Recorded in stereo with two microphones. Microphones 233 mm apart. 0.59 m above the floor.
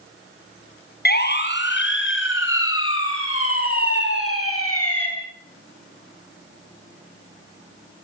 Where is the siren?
45° left (ahead or behind), 4.5 m; by 5.1 s 75° left (ahead or behind), 7.5 m.